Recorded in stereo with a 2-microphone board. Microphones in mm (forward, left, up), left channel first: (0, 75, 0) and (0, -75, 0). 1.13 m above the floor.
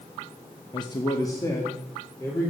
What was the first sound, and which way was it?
A man speaking, 30° left (ahead or behind).